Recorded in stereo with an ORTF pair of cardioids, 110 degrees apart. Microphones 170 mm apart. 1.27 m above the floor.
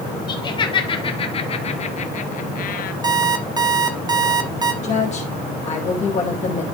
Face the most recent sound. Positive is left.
turn(degrees=45)